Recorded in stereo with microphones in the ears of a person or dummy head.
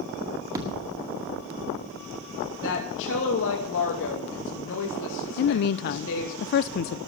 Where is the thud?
20° right (ahead or behind), 1.9 m.